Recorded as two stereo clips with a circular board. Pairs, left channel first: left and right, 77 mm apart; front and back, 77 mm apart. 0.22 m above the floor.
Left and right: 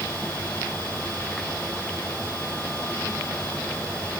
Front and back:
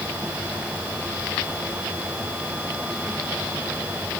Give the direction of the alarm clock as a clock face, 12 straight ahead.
I don't hear an alarm clock.